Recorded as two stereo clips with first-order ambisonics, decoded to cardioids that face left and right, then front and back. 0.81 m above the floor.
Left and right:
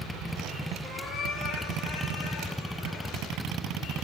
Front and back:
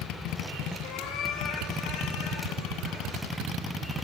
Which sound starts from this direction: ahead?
A cat meowing, at 0.8 s.